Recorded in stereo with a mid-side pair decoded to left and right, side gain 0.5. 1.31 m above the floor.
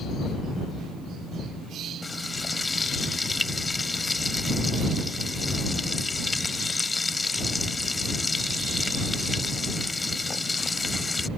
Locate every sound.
2.0 s frying: 25° left